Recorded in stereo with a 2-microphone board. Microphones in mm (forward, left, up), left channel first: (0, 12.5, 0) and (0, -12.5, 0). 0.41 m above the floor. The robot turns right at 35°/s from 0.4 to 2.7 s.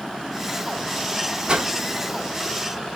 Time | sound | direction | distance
1.5 | a whoosh | 35° right (ahead or behind) | 0.7 m